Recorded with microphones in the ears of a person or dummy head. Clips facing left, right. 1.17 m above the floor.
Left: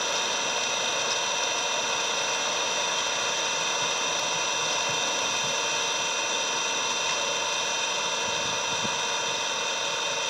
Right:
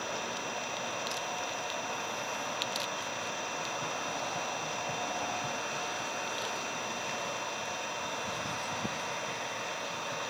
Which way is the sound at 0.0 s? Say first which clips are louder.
Left 6 dB; 85° left.